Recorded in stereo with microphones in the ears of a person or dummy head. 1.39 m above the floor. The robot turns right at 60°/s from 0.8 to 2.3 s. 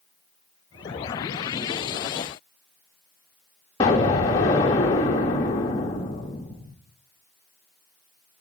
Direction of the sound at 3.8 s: 10° left (ahead or behind).